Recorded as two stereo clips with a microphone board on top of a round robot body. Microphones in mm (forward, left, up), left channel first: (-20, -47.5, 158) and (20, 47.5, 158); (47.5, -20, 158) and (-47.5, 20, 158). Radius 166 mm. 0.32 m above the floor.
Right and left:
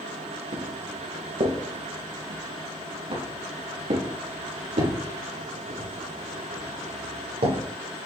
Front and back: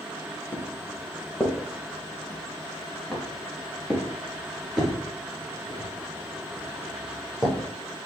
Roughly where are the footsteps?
Ahead left.